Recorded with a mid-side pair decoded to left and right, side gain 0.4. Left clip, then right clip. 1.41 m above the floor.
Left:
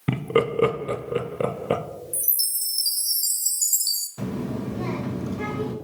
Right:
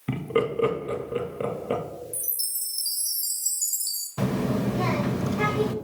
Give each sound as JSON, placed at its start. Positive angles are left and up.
{"t": 0.1, "sound": "laughter", "azimuth_deg": 45, "distance_m": 0.6}
{"t": 2.1, "sound": "a chime", "azimuth_deg": 55, "distance_m": 0.8}
{"t": 4.2, "sound": "a child speaking", "azimuth_deg": -65, "distance_m": 0.6}